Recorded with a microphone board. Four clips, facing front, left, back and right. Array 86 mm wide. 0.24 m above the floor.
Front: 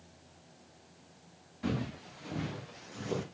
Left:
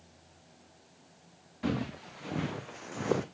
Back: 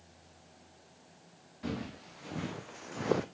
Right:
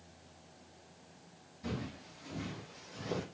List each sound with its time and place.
1.6 s footsteps: 85° left, 1.8 m; by 3.2 s 145° left, 0.8 m